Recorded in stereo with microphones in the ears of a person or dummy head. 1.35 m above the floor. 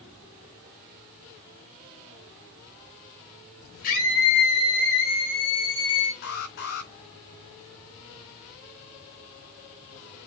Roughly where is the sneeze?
I don't hear a sneeze.